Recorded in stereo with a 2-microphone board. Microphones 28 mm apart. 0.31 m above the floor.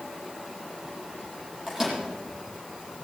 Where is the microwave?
15° right (ahead or behind), 7.5 m.